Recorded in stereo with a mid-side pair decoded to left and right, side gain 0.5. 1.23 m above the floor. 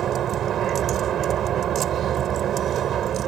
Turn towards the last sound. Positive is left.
turn(degrees=-60)